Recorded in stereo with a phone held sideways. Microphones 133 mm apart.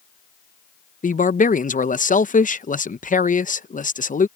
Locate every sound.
1.0 s a man speaking: 80° left